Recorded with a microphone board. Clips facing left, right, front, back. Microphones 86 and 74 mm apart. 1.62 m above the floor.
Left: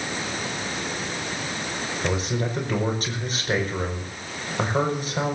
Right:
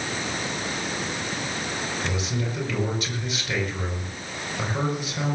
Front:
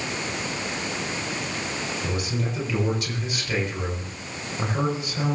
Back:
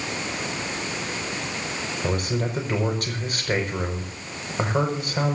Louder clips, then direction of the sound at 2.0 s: Left 3 dB, back 6 dB; 140° left.